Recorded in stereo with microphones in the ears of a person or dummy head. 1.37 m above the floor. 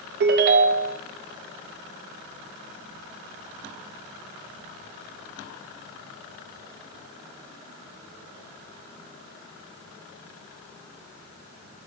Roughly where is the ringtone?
Right.